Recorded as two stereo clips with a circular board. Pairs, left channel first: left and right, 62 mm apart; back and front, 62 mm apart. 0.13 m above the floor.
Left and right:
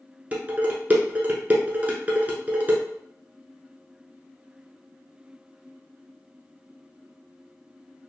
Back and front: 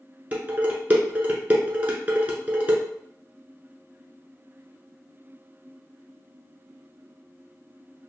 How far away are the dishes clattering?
About 0.9 m.